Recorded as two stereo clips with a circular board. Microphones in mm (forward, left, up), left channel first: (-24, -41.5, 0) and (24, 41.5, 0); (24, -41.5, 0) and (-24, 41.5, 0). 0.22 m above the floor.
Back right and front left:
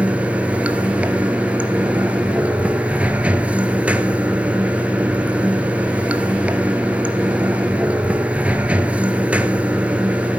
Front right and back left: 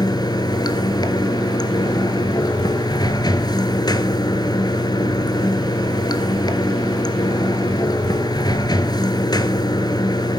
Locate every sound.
0.0 s running water: 15° right, 1.4 m